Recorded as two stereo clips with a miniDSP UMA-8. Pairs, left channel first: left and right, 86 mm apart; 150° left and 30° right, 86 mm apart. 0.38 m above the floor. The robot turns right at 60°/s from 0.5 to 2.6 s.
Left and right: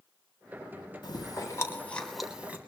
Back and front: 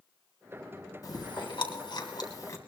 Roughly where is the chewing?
Left.